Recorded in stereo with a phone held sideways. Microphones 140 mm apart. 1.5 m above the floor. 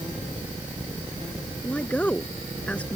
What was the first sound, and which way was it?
A woman speaking, 10° left (ahead or behind).